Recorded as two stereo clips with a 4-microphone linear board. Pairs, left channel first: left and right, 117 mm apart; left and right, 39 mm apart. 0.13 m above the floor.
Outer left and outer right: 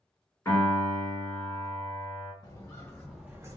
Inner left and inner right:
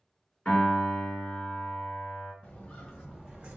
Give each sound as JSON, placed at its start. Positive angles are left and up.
{"t": 0.5, "sound": "a piano", "side_deg": 20, "distance_m": 1.7}
{"t": 2.4, "sound": "footsteps", "side_deg": 30, "distance_m": 1.3}